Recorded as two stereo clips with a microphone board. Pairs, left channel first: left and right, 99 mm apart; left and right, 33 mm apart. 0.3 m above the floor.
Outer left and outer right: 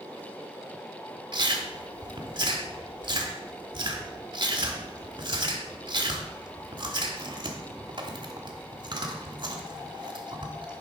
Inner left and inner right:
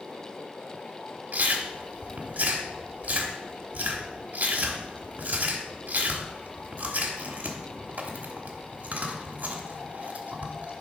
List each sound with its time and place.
1.3 s chewing: 55° right (ahead or behind), 1.2 m